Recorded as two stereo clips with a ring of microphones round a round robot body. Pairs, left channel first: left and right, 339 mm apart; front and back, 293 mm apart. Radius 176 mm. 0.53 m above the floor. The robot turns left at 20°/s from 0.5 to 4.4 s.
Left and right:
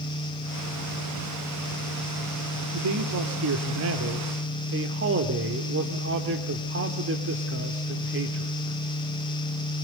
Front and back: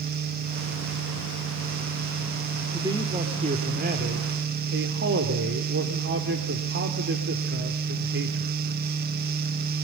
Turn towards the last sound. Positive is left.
turn(degrees=-135)